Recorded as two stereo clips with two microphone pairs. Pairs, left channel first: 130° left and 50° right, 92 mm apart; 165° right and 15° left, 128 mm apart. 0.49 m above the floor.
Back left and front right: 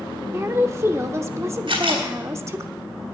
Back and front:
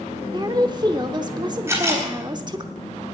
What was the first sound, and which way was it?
A woman speaking, 10° right.